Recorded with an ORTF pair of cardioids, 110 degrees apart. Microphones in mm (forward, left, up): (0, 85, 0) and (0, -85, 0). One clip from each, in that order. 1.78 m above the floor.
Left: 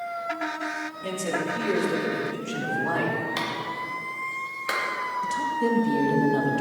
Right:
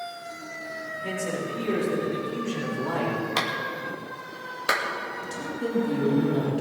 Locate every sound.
1.0 s a man speaking: 35° left, 5 m; by 3.2 s 20° left, 5.5 m
3.4 s a clap: 30° right, 2.5 m
5.2 s a woman speaking: 30° left, 3 m